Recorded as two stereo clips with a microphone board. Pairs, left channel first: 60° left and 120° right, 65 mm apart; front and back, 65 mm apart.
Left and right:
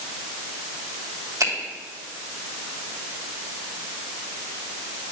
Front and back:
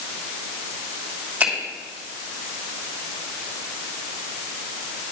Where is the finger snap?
120° right, 2 m.